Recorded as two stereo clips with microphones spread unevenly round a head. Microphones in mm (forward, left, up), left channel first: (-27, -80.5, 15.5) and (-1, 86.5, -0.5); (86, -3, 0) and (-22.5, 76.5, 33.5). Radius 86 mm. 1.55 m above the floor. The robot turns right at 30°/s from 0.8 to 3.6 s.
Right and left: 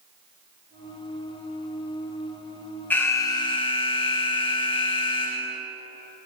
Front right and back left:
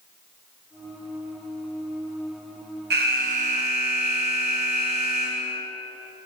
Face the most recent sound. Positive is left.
turn(degrees=-160)